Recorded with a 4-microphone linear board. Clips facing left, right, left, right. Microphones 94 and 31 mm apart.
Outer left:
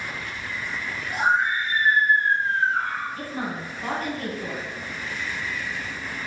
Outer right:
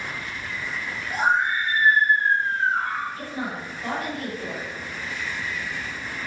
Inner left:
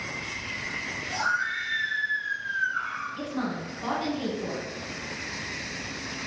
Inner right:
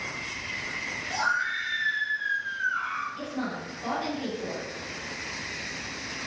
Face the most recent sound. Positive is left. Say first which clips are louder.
# even, inner left 2 dB
turn(degrees=35)  # may be behind; listen again after turning